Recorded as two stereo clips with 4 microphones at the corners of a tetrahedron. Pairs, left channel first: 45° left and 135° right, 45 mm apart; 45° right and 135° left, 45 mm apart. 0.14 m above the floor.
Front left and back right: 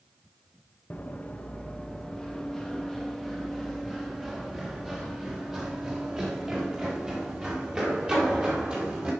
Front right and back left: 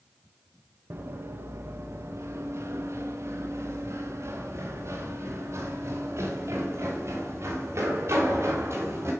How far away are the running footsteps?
About 1.2 m.